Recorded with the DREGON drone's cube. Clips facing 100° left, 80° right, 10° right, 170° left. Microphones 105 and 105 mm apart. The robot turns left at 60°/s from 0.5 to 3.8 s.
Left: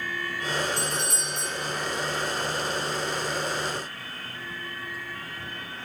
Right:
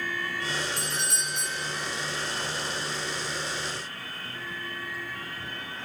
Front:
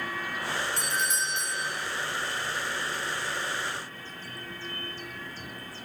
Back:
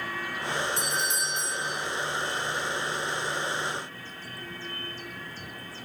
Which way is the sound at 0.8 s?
35° right.